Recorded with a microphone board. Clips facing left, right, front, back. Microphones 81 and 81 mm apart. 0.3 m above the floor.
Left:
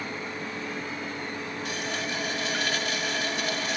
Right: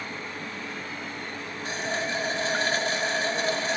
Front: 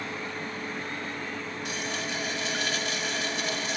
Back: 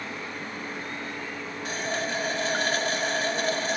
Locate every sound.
1.6 s a running tap: 140° right, 0.9 m